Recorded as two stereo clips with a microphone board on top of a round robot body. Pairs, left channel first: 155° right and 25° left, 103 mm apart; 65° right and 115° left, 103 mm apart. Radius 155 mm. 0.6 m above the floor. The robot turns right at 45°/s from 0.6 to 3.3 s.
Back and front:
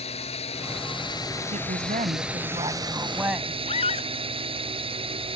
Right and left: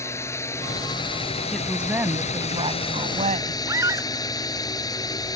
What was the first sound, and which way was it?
A drone, 135° right.